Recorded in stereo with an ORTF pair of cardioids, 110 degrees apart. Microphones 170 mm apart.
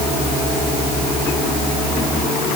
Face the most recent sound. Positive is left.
No sound to turn to.